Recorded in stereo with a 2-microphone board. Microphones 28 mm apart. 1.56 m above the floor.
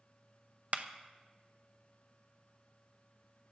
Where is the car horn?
No car horn in this recording.